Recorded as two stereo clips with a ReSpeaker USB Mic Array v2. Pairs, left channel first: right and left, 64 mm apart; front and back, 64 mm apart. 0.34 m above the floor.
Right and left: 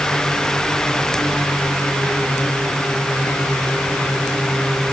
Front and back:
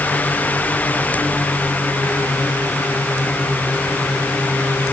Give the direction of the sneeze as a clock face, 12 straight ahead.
No sneeze in this recording.